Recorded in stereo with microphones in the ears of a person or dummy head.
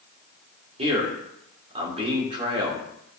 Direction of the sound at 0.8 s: 35° right (ahead or behind).